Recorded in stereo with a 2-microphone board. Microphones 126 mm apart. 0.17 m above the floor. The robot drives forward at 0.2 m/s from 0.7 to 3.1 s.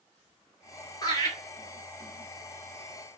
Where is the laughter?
35° left (ahead or behind), 1.3 m.